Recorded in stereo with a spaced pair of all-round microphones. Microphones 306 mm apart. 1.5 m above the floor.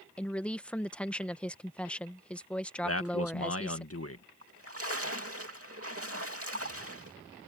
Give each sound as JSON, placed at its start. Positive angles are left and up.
{"t": 0.2, "sound": "a woman speaking", "side_deg": 5}
{"t": 2.8, "sound": "a man speaking", "side_deg": 50}
{"t": 4.4, "sound": "a splash", "side_deg": -50}